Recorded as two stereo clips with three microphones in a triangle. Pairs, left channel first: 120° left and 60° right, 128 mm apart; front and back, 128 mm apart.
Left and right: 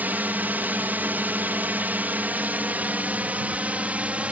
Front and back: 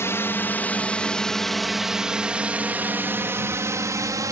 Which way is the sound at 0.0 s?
10° right.